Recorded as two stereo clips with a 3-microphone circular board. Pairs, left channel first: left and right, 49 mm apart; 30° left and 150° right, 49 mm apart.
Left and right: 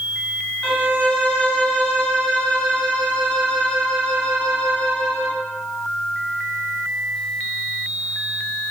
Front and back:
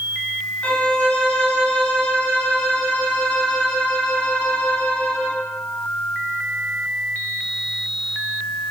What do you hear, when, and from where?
0.6 s a violin: 45° left, 1.0 m